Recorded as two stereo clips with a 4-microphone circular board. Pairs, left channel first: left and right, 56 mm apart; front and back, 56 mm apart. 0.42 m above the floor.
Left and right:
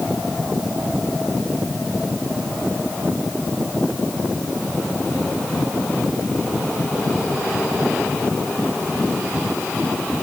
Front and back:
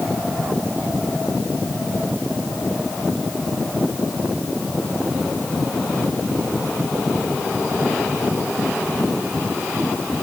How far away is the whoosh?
No whoosh in this recording.